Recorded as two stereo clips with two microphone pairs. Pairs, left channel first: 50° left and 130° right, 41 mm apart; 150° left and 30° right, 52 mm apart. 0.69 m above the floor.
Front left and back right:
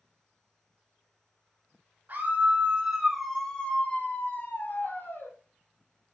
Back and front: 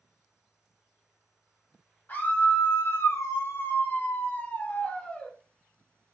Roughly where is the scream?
Behind.